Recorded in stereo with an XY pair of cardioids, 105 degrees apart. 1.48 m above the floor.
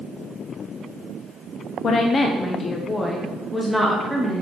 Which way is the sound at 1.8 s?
55° left.